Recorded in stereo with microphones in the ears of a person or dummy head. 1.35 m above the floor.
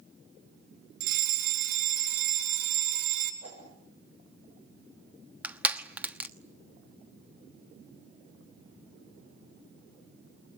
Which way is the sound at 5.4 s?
10° right (ahead or behind).